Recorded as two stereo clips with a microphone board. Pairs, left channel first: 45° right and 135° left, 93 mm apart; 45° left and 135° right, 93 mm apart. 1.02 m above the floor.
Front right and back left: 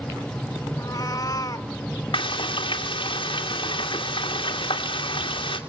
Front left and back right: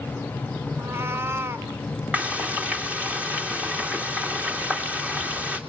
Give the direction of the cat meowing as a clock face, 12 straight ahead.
3 o'clock.